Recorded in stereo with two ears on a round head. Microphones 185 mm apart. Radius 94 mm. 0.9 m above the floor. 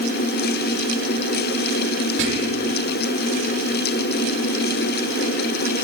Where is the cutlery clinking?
No cutlery clinking in this recording.